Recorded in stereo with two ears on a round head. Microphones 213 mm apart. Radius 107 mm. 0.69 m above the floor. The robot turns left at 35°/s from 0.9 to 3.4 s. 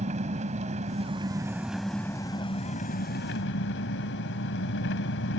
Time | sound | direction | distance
0.0 | an engine running | 150° right | ?